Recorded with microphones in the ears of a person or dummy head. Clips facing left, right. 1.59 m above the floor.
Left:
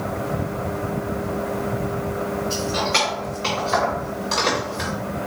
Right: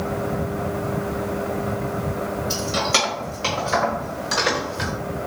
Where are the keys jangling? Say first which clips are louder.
Left 1 dB; 55° right (ahead or behind), 2 m; by 4.9 s 5° left (ahead or behind), 1.5 m.